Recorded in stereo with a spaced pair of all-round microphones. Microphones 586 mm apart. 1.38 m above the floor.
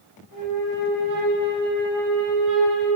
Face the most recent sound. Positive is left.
turn(degrees=-30)  # may be behind; listen again after turning